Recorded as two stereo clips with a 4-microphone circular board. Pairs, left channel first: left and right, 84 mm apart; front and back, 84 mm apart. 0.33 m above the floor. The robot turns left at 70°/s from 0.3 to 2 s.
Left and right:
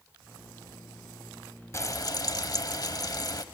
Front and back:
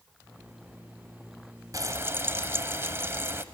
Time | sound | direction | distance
1.7 | frying | 140° left | 0.7 m